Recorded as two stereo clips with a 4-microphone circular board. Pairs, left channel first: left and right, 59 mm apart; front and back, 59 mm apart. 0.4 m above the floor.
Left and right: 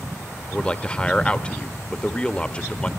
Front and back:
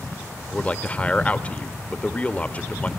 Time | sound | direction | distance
0.5 | a man speaking | 40° left | 0.9 m